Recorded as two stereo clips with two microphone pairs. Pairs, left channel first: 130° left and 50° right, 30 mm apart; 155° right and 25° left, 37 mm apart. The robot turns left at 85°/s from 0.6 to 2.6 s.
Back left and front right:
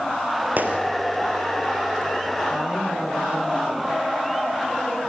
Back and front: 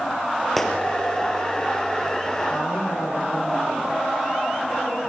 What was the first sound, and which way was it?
A gunshot, 70° right.